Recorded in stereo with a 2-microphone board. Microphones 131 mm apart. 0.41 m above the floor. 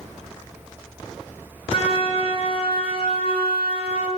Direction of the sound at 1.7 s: 45° left (ahead or behind).